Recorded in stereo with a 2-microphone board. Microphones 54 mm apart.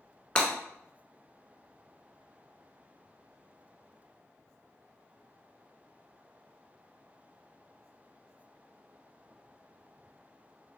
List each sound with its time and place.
0.3 s breaking glass: 20° left (ahead or behind), 1.1 m